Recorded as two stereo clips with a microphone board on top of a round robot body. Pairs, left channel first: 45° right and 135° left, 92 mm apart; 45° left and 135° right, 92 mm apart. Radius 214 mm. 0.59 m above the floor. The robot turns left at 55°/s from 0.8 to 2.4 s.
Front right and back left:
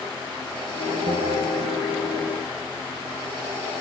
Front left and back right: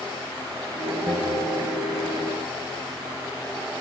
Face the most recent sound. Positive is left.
turn(degrees=55)